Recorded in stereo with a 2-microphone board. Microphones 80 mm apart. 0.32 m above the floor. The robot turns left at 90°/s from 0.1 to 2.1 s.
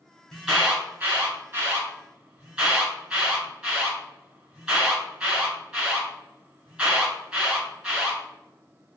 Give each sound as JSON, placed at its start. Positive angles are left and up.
{"t": 0.3, "sound": "an alarm", "side_deg": 5, "distance_m": 2.0}